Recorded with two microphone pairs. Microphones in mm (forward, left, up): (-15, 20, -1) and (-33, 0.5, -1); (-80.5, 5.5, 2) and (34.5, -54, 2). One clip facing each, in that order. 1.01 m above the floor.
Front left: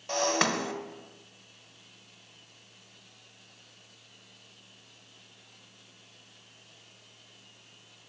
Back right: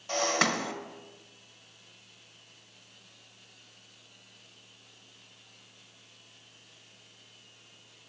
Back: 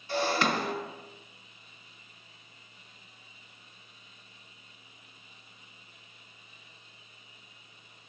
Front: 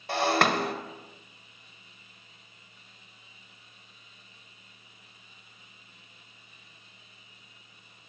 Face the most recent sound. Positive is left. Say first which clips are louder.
# even, front 3 dB
turn(degrees=-30)